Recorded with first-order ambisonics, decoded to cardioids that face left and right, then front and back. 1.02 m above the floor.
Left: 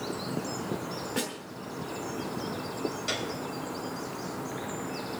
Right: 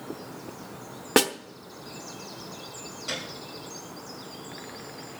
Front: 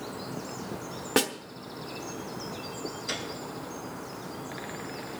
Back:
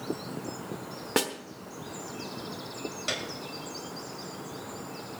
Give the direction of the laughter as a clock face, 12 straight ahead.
I don't hear laughter.